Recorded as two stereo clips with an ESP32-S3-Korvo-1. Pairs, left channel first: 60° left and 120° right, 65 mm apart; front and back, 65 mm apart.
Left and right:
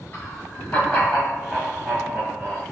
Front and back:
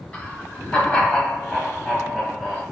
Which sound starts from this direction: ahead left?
Laughter, at 0.1 s.